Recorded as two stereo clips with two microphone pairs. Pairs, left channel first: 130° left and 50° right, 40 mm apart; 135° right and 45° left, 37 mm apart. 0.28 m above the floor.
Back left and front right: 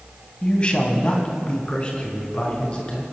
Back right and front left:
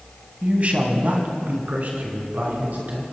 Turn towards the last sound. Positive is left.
turn(degrees=65)